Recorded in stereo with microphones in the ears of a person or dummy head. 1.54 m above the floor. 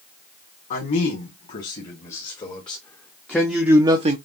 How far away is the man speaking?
About 1.9 m.